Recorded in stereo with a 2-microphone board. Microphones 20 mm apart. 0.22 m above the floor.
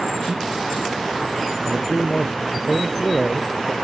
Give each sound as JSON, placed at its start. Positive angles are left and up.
{"t": 1.6, "sound": "a man speaking", "side_deg": 30}